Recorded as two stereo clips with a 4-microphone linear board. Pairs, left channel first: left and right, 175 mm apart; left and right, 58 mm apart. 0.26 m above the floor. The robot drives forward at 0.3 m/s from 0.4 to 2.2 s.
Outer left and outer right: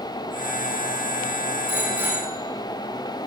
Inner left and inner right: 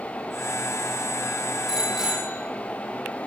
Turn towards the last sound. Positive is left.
turn(degrees=-10)  # may be behind; listen again after turning